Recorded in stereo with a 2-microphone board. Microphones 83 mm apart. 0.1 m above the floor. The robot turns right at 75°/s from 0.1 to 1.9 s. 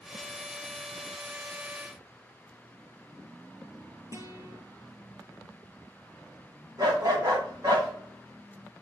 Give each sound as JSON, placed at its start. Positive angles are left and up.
{"t": 4.1, "sound": "a guitar", "side_deg": -40, "distance_m": 2.5}
{"t": 6.8, "sound": "a dog barking", "side_deg": -45, "distance_m": 5.0}